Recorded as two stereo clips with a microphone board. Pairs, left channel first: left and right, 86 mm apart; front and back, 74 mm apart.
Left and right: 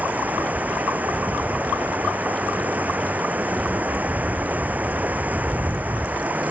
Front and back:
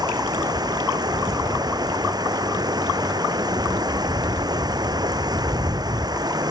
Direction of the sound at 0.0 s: 160° right.